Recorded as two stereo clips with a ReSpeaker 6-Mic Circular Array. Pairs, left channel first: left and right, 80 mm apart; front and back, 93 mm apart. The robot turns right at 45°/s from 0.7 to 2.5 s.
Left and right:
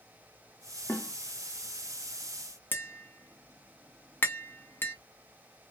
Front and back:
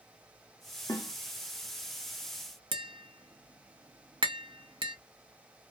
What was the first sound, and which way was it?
A snare drum, 30° left.